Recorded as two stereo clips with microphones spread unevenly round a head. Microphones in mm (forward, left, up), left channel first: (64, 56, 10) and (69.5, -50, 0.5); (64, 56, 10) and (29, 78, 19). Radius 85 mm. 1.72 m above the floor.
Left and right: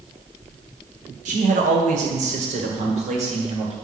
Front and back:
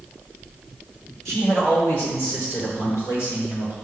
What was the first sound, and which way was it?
A man speaking, 125° right.